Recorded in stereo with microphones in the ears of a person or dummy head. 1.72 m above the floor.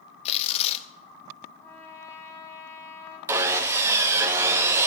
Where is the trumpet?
15° left (ahead or behind), 1.7 m.